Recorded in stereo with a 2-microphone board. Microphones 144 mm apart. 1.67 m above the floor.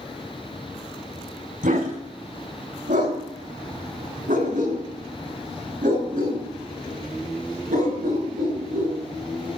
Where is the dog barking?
70° right (ahead or behind), 4 m; by 9.0 s 75° right (ahead or behind), 8 m.